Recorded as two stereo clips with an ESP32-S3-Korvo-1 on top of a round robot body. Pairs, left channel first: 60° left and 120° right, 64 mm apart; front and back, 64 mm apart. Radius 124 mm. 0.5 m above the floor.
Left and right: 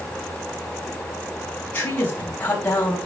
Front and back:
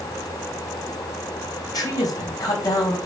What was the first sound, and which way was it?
A man speaking, straight ahead.